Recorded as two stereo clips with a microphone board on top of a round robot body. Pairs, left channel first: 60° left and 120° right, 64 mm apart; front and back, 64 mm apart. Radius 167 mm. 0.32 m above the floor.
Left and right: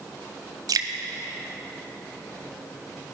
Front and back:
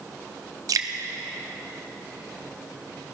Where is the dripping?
145° right, 0.9 m.